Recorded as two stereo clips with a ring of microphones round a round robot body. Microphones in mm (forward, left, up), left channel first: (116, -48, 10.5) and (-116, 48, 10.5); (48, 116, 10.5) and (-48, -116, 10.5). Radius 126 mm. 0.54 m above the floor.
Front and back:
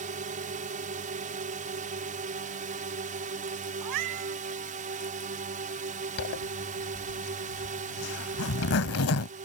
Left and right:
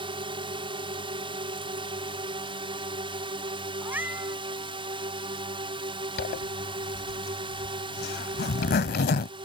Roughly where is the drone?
Behind.